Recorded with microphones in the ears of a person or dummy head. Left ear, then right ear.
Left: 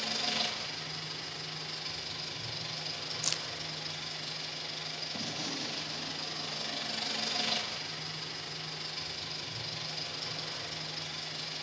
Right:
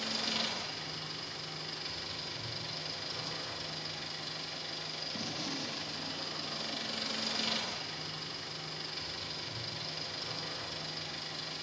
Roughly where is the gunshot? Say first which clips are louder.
Left 1 dB; centre.